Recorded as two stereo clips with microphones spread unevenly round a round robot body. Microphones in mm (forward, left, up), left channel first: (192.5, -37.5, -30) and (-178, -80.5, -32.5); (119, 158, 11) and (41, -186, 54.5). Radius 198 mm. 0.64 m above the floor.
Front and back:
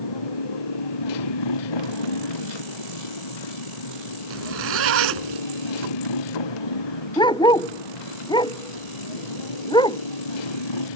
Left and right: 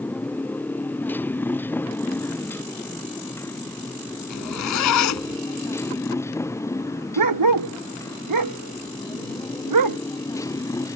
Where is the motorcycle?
10° right; by 10.9 s 5° right.